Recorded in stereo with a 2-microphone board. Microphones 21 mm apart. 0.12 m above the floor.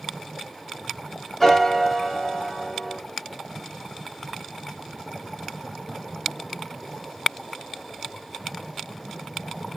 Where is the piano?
15° left (ahead or behind), 1.8 m.